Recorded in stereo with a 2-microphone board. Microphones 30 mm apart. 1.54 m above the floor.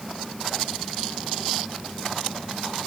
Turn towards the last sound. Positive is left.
No sound to turn to.